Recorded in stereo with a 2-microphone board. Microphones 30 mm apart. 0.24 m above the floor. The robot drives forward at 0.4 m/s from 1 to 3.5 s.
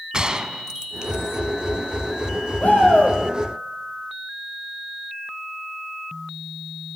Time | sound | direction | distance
0.1 | a gunshot | 25° right (ahead or behind) | 0.8 m
2.6 | a shout | 55° left (ahead or behind) | 9.5 m